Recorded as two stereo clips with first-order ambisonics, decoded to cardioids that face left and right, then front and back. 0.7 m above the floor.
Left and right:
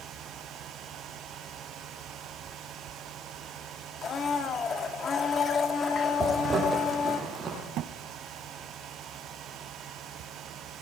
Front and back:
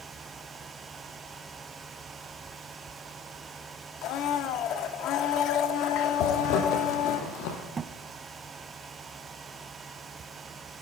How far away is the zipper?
About 5.5 m.